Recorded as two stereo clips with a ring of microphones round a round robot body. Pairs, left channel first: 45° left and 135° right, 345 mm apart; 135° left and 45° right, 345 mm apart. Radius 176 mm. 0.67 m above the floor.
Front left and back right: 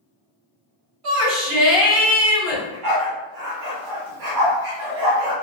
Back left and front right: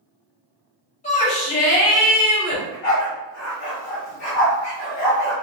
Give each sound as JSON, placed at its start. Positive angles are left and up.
{"t": 1.0, "sound": "a shout", "azimuth_deg": -155, "distance_m": 1.7}
{"t": 2.5, "sound": "a dog barking", "azimuth_deg": -170, "distance_m": 1.2}